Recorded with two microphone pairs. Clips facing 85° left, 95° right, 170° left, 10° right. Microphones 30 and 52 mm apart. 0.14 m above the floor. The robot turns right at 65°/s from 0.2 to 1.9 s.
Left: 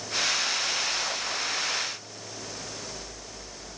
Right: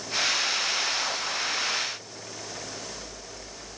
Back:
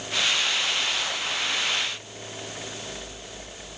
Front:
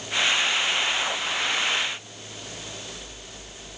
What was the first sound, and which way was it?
Only background noise.